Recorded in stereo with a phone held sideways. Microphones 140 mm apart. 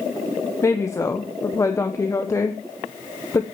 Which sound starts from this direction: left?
A woman speaking, at 0.6 s.